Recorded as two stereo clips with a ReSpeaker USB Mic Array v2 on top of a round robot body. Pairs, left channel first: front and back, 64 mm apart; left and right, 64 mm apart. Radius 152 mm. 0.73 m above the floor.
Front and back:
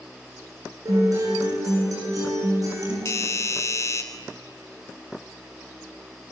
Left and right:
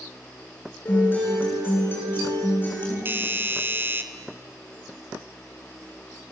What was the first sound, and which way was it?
A guitar, 150° left.